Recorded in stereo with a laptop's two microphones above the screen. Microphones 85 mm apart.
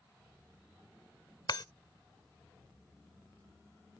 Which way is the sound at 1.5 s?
60° left (ahead or behind).